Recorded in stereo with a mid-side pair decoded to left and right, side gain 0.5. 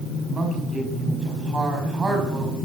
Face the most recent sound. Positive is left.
turn(degrees=-20)